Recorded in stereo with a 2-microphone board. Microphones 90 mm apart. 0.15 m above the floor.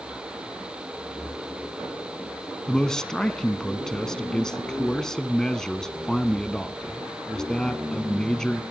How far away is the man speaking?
About 1.0 m.